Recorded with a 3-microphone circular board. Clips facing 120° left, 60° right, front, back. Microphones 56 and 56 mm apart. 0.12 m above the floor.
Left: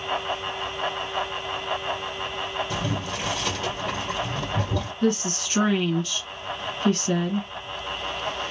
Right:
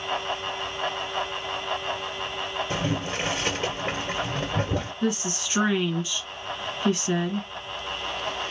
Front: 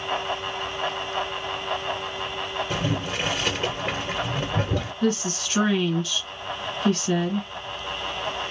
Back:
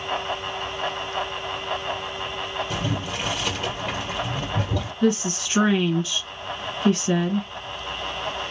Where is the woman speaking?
115° right, 1.5 m.